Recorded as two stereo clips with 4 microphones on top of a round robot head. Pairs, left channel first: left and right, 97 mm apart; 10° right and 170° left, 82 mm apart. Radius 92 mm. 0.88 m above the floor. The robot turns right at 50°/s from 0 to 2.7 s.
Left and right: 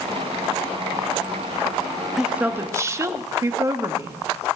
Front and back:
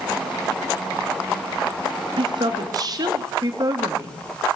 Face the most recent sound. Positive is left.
turn(degrees=-150)